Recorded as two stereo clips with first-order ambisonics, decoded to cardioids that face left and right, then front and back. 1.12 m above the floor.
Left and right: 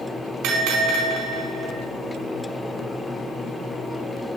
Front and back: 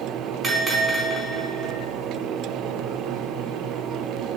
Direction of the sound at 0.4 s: 110° right.